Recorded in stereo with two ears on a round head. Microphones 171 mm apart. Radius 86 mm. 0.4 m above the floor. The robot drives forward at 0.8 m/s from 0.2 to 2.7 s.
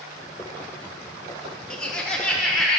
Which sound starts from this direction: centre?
Laughter, at 1.7 s.